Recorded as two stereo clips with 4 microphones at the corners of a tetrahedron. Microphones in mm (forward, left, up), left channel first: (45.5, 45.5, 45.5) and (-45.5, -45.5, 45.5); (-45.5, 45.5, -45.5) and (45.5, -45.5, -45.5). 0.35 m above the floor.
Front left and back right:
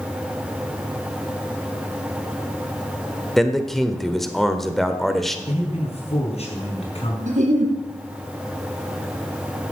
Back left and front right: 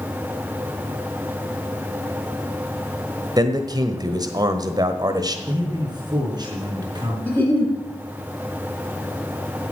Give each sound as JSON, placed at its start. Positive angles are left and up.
{"t": 3.4, "sound": "a man speaking", "azimuth_deg": -40, "distance_m": 1.3}
{"t": 5.5, "sound": "a man speaking", "azimuth_deg": 10, "distance_m": 4.0}
{"t": 7.3, "sound": "a giggle", "azimuth_deg": -150, "distance_m": 3.5}